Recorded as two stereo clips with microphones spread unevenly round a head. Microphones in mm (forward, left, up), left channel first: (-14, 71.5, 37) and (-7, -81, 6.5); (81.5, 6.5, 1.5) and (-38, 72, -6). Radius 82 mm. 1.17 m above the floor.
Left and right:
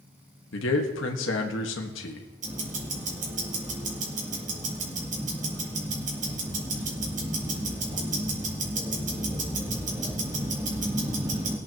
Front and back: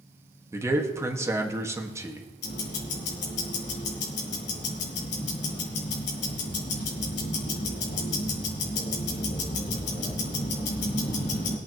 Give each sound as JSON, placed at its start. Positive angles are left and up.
{"t": 0.5, "sound": "a man speaking", "azimuth_deg": 80, "distance_m": 1.7}
{"t": 2.4, "sound": "ticking", "azimuth_deg": -40, "distance_m": 3.5}